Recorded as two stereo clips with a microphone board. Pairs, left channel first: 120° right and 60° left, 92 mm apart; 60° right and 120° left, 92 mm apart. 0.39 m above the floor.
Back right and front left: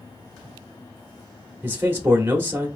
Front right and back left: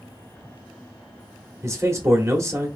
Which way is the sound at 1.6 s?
105° left.